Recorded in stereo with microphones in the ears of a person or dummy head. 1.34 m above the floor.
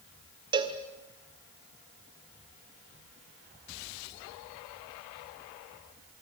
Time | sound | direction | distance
0.5 | a cowbell | 20° right (ahead or behind) | 1.7 m